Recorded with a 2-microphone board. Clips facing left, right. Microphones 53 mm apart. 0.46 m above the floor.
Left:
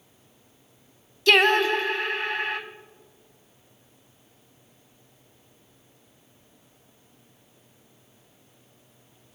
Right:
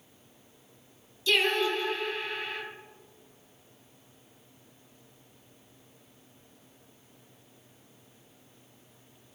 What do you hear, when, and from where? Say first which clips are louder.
1.3 s singing: left 7 dB; 80° left, 1.1 m